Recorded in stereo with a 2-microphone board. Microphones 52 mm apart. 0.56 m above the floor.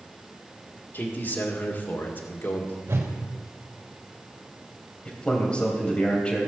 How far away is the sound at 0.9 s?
About 1.8 m.